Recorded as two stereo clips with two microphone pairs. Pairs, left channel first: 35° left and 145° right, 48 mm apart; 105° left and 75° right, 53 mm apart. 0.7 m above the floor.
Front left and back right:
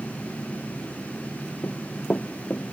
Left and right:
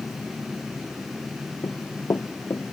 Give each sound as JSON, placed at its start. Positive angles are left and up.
{"t": 1.6, "sound": "running footsteps", "azimuth_deg": 85}